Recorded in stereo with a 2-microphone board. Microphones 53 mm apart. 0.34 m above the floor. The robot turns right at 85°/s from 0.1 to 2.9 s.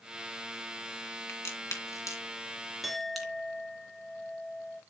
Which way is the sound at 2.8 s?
Centre (ahead or behind).